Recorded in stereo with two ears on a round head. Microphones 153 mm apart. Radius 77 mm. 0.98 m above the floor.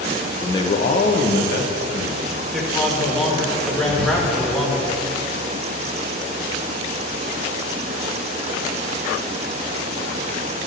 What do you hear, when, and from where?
0.4 s a man speaking: 15° left (ahead or behind), 0.6 m; by 2.4 s 60° left (ahead or behind), 1.7 m
2.5 s a man speaking: centre (ahead or behind), 1.2 m
3.9 s whispering: 25° right (ahead or behind), 1.1 m